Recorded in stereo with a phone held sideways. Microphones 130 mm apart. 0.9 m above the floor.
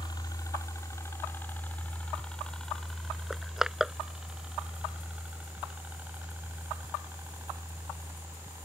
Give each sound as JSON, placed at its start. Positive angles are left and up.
{"t": 0.0, "sound": "a helicopter", "side_deg": 30}
{"t": 3.3, "sound": "crushing", "side_deg": -5}